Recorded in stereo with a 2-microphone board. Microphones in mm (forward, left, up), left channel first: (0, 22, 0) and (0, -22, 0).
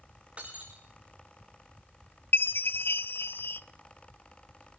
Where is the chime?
60° left (ahead or behind), 0.6 m.